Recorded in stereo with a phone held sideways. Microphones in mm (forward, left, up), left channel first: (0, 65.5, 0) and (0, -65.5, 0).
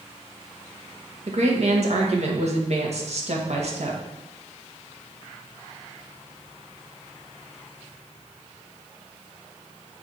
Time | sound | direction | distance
1.3 | a woman speaking | 60° right (ahead or behind) | 1.6 m